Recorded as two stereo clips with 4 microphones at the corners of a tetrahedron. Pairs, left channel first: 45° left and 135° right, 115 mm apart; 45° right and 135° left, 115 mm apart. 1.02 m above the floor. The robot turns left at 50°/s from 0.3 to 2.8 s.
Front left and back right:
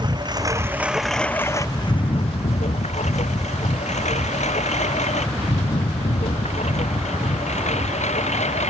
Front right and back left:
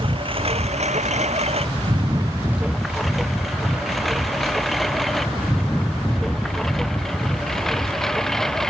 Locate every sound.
0.0 s a lawn mower: 175° left; by 8.7 s 40° left